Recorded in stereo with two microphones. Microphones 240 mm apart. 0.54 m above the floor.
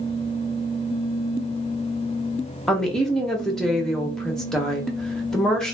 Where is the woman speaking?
Centre (ahead or behind), 0.7 m.